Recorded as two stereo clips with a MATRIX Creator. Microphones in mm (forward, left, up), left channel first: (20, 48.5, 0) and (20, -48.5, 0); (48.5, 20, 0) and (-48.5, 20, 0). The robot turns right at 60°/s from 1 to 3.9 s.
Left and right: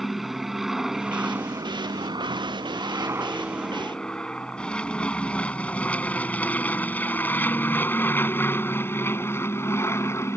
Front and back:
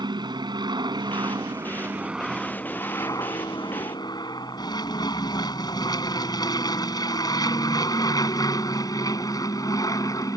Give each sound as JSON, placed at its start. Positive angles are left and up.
{"t": 0.0, "sound": "an aircraft", "azimuth_deg": 180}